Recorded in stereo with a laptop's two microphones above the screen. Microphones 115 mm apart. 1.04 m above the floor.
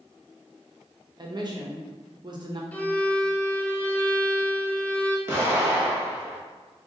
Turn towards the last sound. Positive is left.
turn(degrees=-20)  # may be behind; listen again after turning